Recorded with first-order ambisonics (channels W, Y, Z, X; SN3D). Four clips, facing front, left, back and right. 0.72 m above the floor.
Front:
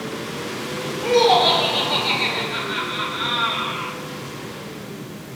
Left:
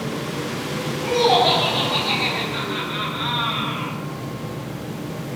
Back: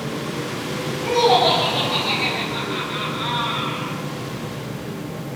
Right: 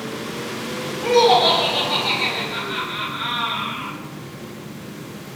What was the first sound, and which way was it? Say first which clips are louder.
Laughter: right 3 dB, front 1 dB; 55° right.